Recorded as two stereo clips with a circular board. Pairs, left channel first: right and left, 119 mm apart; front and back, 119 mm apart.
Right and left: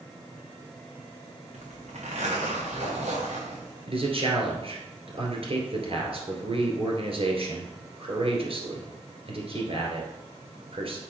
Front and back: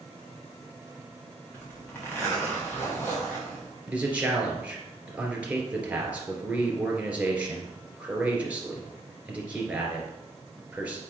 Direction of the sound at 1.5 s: 70° left.